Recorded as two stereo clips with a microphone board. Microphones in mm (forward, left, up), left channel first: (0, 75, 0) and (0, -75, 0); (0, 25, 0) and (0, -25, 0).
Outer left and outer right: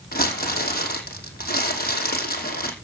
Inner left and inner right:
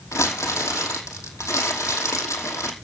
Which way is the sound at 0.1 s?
85° left.